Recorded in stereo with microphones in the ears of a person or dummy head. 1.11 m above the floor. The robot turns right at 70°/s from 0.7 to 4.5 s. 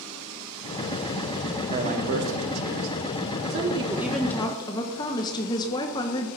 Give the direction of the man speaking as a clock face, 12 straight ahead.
5 o'clock.